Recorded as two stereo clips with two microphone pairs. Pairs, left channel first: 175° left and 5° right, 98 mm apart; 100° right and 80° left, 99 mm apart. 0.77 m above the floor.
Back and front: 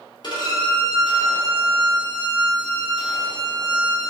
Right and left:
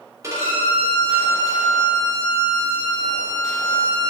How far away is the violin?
About 2.5 m.